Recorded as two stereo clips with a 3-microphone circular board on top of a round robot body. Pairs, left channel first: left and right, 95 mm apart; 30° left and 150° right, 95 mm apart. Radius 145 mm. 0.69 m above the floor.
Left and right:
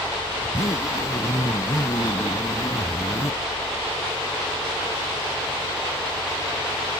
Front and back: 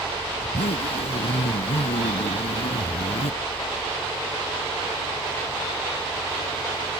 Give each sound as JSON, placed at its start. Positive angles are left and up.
{"t": 0.4, "sound": "a zipper", "azimuth_deg": 30}